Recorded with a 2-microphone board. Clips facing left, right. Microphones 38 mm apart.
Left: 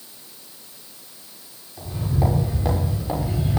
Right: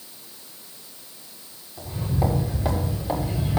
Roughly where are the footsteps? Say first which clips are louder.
Left 1 dB; centre.